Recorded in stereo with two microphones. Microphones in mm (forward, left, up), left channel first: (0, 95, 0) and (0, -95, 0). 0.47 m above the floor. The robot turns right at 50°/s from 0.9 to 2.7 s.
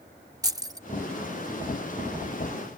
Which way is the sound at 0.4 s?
20° right (ahead or behind).